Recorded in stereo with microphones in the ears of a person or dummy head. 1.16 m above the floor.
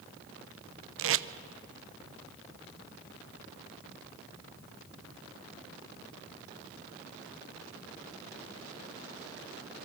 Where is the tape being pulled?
65° right (ahead or behind), 0.6 m.